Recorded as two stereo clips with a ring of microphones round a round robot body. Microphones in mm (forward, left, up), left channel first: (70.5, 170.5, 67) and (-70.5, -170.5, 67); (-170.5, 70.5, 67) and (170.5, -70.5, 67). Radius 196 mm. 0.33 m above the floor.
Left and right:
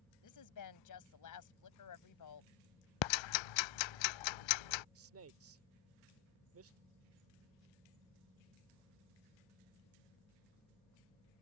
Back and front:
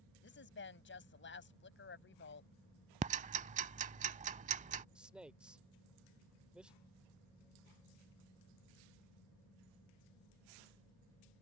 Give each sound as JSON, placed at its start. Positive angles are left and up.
{"t": 0.2, "sound": "a woman speaking", "azimuth_deg": 100}
{"t": 3.0, "sound": "ticking", "azimuth_deg": 50}
{"t": 5.0, "sound": "a man speaking", "azimuth_deg": -110}